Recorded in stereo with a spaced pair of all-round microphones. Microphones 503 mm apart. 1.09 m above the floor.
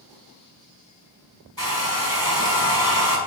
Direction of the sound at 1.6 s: 45° right (ahead or behind).